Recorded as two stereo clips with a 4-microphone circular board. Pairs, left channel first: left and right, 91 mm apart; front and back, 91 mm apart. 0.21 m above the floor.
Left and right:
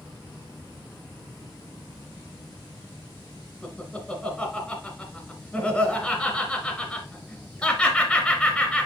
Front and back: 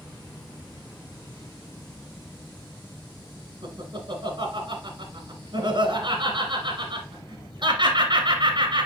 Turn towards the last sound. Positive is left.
turn(degrees=170)